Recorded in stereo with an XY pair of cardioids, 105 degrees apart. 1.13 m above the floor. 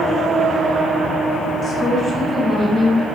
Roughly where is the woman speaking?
Ahead left.